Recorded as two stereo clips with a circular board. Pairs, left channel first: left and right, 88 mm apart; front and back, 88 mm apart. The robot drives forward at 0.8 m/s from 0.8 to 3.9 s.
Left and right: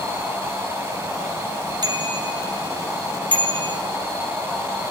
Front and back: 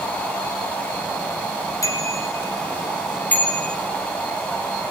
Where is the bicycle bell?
50° right, 3.5 m; by 3.8 s 75° right, 3 m.